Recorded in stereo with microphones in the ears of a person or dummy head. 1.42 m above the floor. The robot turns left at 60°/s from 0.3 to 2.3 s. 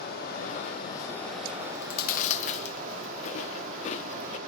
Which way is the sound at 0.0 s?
65° left.